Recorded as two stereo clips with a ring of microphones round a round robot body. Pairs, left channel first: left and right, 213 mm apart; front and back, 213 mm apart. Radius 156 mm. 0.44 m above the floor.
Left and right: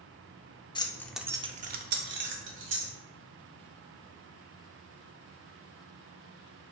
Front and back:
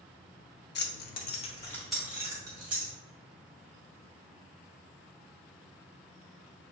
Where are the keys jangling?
25° left, 0.7 m; by 2.9 s 115° right, 1.2 m.